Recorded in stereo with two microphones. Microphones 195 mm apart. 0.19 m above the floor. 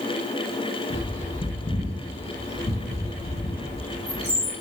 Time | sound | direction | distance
0.9 | a bird | 35° left (ahead or behind) | 1.4 m